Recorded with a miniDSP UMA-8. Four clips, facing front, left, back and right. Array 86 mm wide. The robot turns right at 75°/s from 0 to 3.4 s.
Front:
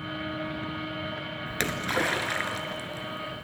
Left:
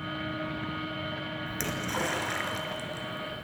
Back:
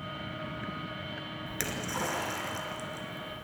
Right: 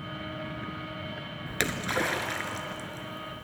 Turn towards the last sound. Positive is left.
turn(degrees=75)